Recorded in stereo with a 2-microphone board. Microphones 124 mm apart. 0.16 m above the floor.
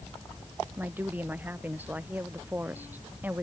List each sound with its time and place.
0.8 s a woman speaking: 15° right (ahead or behind)